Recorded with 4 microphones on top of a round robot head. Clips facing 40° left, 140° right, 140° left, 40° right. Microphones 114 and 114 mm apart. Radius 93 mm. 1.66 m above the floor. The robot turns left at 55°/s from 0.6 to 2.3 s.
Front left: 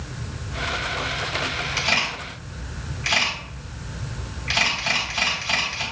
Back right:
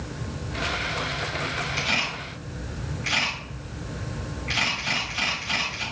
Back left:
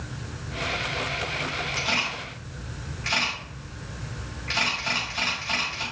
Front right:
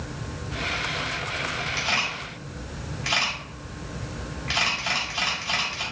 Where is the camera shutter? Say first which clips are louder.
Front left 3 dB, even; 65° left, 2.5 m; by 5.8 s 35° left, 2.5 m.